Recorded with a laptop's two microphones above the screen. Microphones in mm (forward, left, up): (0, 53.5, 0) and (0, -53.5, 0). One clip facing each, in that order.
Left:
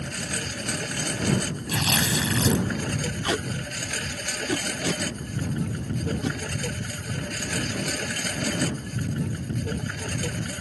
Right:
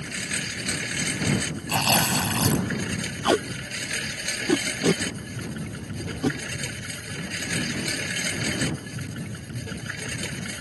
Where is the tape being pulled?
45° right (ahead or behind).